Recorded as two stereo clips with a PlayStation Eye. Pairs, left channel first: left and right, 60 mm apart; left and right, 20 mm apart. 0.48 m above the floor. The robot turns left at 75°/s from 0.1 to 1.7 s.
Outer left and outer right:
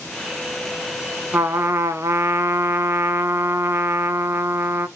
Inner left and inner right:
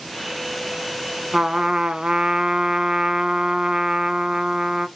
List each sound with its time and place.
1.3 s a trumpet: 35° right (ahead or behind), 1.0 m; by 4.9 s 60° right (ahead or behind), 1.0 m